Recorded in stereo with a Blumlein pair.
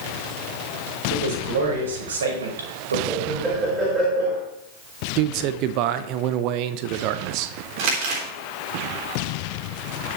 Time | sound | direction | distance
1.1 | a man speaking | 55° right | 5 m
3.1 | laughter | 15° right | 4.5 m
5.2 | a man speaking | 40° right | 0.8 m
7.8 | crumpling | 45° right | 3.5 m